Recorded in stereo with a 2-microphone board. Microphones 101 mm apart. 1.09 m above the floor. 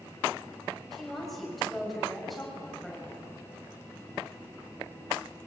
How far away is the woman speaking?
About 6.5 m.